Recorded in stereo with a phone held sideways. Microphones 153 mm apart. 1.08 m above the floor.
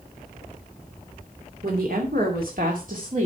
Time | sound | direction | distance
1.6 | a woman speaking | 80° right | 2.5 m